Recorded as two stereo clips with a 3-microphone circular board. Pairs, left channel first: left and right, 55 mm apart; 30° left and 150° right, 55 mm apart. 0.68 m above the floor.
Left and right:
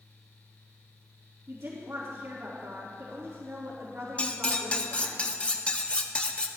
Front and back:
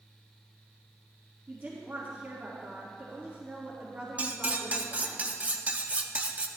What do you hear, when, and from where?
1.5 s a woman speaking: 110° right, 1.7 m
4.2 s cutlery clinking: 155° left, 0.6 m